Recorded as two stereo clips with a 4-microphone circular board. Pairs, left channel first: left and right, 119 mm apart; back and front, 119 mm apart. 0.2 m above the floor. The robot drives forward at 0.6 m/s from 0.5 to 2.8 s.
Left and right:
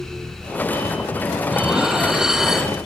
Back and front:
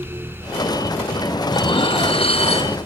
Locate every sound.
1.5 s dishes clattering: 170° right, 1.1 m; by 2.8 s 175° right, 1.7 m